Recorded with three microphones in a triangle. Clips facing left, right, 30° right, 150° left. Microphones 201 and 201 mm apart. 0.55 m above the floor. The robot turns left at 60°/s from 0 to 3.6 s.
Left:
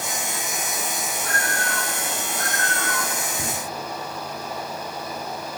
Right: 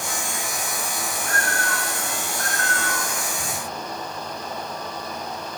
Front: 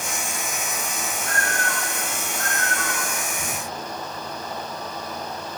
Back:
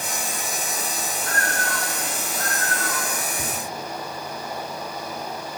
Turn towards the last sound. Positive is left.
turn(degrees=90)